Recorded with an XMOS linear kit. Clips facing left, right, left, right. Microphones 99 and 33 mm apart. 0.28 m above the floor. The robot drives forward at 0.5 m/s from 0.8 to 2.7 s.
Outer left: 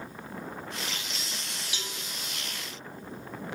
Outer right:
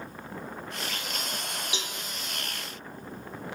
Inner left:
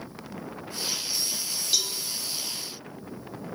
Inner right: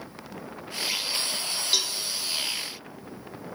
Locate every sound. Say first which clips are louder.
1.7 s a cowbell: outer right 3 dB, inner right 1 dB; 20° right (ahead or behind), 0.5 m